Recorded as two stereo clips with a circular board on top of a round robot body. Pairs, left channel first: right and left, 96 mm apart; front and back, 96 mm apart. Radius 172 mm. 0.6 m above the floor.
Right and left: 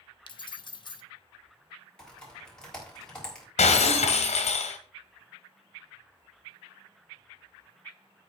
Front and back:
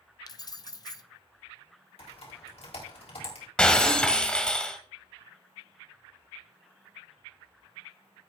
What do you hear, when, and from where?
0.3 s keys jangling: 50° right, 0.9 m
2.0 s typing on a keyboard: 10° right, 4.5 m
3.6 s breaking glass: 80° right, 1.4 m